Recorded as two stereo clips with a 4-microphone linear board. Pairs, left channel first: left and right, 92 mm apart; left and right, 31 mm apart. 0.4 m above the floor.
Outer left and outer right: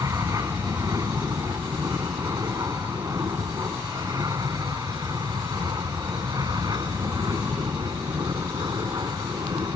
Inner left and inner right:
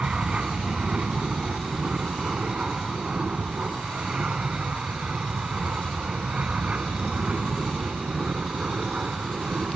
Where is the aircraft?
35° right (ahead or behind); by 9.8 s 45° right (ahead or behind).